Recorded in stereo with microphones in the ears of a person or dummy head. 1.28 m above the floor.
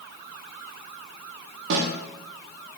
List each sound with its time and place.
1.7 s a snare drum: 60° right (ahead or behind), 1.2 m